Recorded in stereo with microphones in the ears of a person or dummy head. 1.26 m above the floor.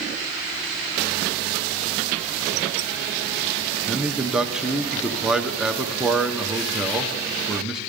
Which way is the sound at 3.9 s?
Centre (ahead or behind).